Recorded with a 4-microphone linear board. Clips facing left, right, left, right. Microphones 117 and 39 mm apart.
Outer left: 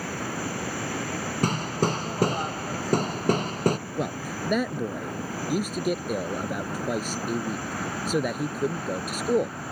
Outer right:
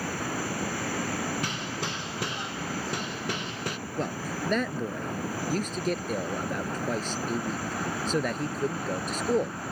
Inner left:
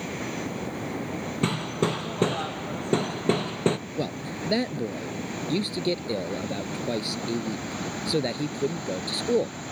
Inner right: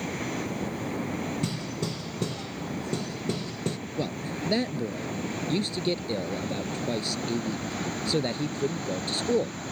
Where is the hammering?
40° left (ahead or behind).